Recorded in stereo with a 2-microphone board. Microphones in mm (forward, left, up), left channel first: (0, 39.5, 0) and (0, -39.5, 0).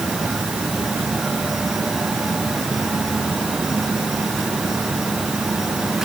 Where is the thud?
No thud in this recording.